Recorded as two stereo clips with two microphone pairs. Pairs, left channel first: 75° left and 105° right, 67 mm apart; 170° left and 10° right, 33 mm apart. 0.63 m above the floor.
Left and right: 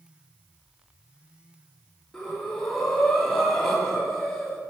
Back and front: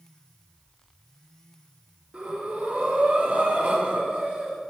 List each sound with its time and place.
2.1 s breathing: straight ahead, 1.7 m